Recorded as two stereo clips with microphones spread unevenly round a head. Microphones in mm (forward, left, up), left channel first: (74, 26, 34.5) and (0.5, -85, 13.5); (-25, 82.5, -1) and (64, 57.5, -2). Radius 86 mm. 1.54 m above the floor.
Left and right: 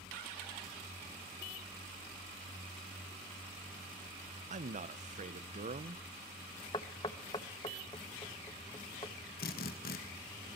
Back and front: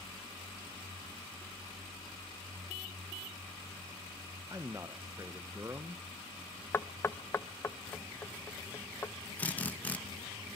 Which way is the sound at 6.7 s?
105° left.